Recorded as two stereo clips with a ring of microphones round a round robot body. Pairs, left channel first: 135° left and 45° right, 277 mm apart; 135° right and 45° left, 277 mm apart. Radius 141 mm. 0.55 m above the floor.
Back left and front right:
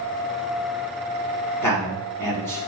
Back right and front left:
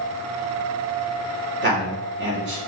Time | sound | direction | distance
1.6 | a man speaking | 60° left | 1.1 m